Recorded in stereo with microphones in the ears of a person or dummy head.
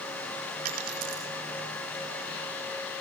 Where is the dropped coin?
45° right (ahead or behind), 3.5 m.